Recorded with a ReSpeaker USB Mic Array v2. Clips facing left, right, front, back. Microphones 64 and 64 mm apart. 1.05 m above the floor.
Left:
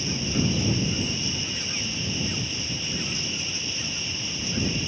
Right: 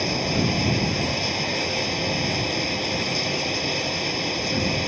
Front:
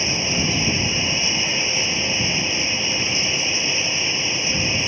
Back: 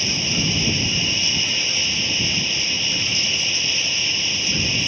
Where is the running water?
65° right.